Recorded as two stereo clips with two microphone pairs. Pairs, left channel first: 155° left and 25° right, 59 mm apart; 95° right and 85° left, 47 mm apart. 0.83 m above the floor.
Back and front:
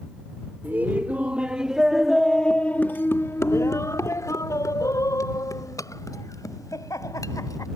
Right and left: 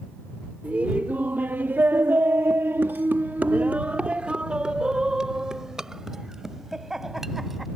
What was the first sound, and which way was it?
Laughter, 30° left.